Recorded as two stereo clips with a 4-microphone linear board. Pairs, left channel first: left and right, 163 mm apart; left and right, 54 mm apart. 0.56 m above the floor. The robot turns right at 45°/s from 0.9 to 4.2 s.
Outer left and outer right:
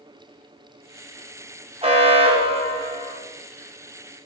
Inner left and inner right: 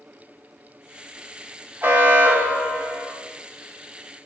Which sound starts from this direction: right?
An alarm, at 1.8 s.